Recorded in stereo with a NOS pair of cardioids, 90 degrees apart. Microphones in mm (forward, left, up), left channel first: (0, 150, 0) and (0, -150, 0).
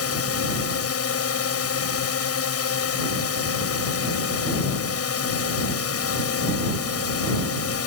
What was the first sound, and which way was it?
A drone, 50° left.